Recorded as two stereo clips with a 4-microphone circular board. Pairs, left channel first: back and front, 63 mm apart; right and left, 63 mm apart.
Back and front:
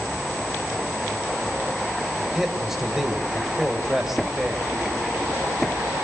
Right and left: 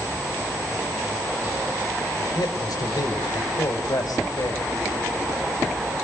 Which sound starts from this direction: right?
A man speaking, at 2.3 s.